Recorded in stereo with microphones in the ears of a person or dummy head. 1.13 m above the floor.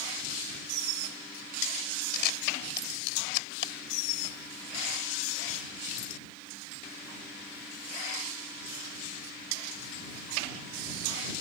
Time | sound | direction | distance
2.1 | a camera shutter | 60° left (ahead or behind) | ?